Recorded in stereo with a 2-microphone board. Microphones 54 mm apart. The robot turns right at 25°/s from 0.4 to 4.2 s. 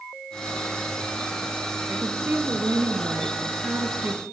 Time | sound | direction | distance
1.9 | a woman speaking | 135° right | 2 m